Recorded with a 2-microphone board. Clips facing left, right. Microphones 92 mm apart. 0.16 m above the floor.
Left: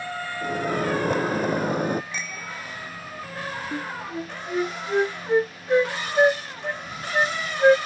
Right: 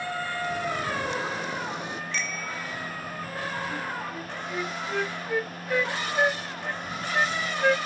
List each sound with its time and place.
0.4 s a microwave: 45° left (ahead or behind)
2.1 s a bicycle bell: 10° left (ahead or behind)
3.7 s a flute: 30° left (ahead or behind)